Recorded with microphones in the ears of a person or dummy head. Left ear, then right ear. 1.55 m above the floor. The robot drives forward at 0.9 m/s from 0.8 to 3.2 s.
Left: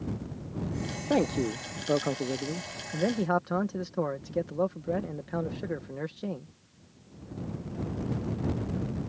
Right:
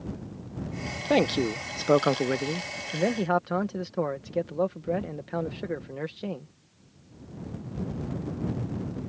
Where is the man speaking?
30° right (ahead or behind); by 6.5 s 25° right (ahead or behind).